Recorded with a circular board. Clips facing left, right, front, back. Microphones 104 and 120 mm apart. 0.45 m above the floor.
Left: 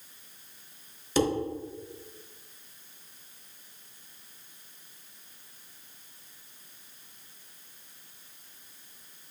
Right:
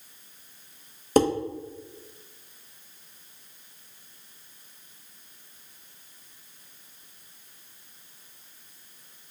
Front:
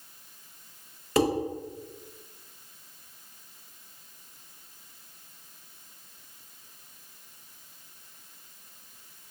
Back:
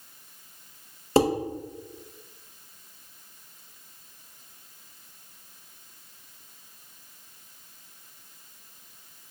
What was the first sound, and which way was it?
Dishes clattering, 125° right.